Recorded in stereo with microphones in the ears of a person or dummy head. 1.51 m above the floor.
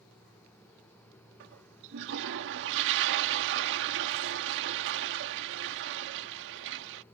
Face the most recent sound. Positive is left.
turn(degrees=-65)  # may be behind; listen again after turning